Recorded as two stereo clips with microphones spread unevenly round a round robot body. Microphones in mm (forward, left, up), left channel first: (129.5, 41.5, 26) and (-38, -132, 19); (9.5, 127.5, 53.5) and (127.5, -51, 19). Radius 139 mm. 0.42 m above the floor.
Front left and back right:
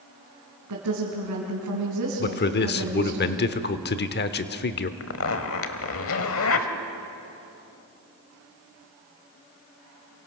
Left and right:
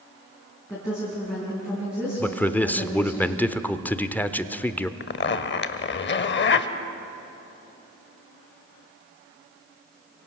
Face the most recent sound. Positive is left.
turn(degrees=85)